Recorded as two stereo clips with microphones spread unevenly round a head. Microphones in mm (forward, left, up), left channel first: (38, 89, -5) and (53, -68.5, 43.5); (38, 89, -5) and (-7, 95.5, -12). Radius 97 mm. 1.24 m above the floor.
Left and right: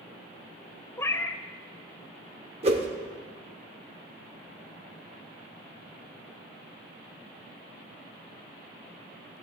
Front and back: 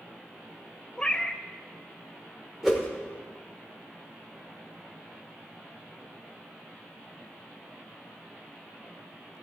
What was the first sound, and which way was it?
A cat meowing, straight ahead.